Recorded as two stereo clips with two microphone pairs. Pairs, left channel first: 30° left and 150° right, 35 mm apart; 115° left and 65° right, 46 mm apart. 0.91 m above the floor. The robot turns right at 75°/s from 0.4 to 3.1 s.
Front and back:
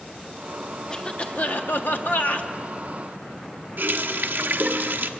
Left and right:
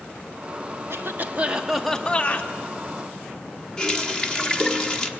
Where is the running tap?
170° right, 1.2 m.